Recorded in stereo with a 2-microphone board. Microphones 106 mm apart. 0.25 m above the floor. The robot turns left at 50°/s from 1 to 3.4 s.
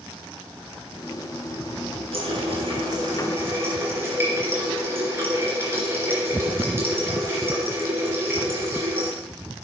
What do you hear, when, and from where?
2.1 s a running tap: 95° right, 2.5 m; by 9.2 s 155° right, 2.5 m